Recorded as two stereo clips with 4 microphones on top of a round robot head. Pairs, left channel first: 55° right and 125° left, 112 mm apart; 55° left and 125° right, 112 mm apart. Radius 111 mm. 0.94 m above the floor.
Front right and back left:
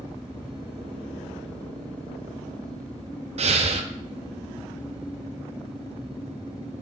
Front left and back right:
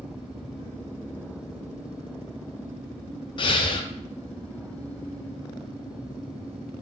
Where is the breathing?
100° left, 0.5 m.